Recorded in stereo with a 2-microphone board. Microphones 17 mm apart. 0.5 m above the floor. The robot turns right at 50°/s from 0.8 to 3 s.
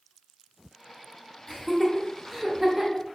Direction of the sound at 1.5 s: 15° left (ahead or behind).